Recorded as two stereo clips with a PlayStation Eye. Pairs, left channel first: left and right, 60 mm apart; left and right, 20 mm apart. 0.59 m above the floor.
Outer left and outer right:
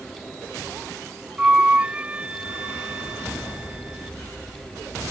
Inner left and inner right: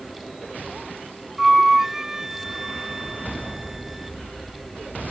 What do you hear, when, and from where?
1.4 s a flute: 20° right (ahead or behind)